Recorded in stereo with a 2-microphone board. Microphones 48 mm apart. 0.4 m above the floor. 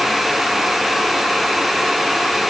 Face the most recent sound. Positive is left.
No sound to turn to.